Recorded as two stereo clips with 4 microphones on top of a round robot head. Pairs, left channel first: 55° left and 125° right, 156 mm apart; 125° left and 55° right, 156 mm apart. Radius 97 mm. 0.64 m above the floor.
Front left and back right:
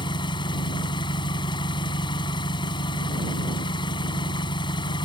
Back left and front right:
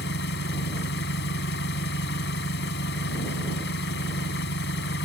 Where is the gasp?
I don't hear a gasp.